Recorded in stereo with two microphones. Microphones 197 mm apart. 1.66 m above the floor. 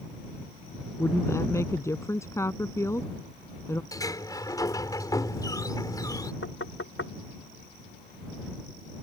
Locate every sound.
1.0 s a woman speaking: 15° left (ahead or behind)
3.9 s a sliding door: 15° left (ahead or behind)
6.4 s knocking: 85° left